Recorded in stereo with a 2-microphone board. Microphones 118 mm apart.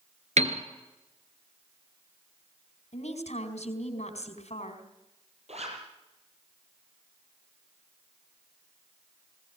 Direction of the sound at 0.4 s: 80° right.